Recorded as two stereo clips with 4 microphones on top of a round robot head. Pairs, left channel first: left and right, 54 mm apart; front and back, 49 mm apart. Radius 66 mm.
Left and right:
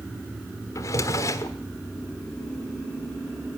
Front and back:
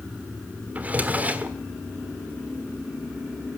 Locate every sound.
0.8 s a drawer: 120° left, 1.3 m